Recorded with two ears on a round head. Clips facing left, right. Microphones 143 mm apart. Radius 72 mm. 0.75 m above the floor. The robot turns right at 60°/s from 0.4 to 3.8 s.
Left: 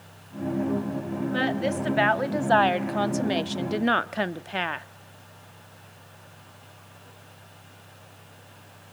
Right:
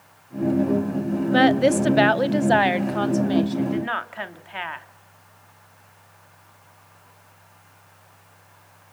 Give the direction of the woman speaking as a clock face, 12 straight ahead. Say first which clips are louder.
Right 10 dB; 3 o'clock.